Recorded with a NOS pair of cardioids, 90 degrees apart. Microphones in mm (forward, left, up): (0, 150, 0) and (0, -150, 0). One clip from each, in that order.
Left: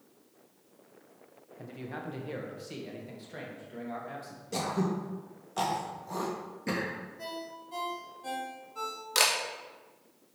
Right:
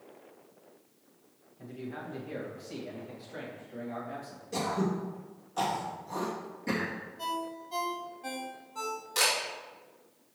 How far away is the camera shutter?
About 2 m.